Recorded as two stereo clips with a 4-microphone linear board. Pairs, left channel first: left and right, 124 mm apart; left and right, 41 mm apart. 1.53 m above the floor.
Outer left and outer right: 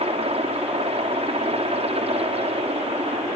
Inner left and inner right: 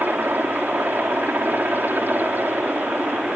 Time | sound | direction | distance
0.0 | a helicopter | 55° right (ahead or behind) | ?